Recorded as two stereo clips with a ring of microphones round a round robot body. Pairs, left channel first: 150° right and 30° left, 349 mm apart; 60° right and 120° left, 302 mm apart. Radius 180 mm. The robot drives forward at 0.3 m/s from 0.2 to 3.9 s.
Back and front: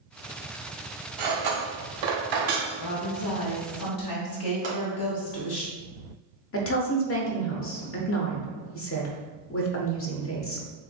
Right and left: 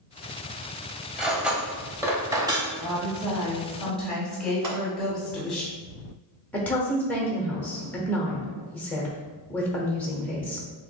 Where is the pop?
100° left, 2.0 m.